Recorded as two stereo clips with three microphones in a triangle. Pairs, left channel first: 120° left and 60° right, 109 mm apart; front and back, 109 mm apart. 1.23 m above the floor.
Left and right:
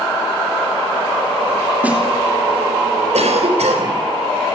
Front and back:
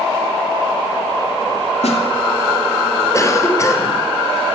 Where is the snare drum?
15° left, 3.5 m.